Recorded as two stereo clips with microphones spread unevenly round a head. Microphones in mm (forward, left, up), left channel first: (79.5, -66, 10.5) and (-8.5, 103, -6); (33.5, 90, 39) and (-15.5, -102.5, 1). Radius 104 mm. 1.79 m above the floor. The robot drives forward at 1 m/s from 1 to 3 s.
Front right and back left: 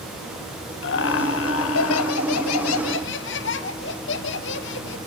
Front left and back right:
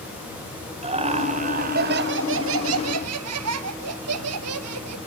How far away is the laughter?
About 2.5 m.